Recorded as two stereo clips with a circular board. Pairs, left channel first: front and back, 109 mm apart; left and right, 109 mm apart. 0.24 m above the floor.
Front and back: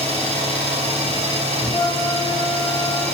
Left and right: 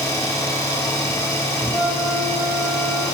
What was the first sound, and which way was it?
An engine running, 160° left.